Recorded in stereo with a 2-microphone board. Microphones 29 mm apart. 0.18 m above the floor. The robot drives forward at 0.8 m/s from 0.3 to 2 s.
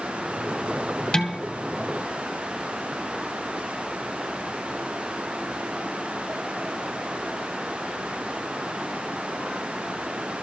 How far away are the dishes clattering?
About 2 m.